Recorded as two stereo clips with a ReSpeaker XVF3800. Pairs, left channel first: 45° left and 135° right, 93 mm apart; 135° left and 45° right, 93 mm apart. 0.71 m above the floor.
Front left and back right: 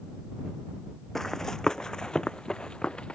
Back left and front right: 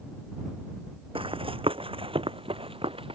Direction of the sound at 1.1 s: 40° right.